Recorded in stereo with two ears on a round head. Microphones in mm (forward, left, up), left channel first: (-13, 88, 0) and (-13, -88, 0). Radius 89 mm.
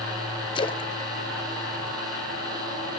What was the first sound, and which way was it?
A splash, 25° left (ahead or behind).